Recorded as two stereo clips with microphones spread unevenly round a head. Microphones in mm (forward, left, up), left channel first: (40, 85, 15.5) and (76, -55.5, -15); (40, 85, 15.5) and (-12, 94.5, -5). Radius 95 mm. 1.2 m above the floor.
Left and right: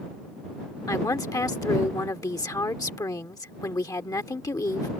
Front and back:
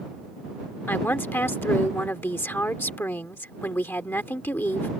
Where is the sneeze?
No sneeze in this recording.